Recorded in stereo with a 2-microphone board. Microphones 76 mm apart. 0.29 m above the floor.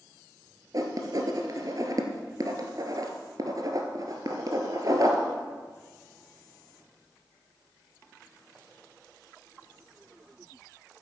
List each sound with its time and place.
0.7 s writing: 55° right (ahead or behind), 1.5 m